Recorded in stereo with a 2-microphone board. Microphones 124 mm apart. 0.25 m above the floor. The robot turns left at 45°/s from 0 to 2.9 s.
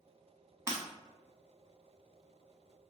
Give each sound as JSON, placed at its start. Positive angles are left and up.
{"t": 0.7, "sound": "breaking glass", "side_deg": -20, "distance_m": 0.9}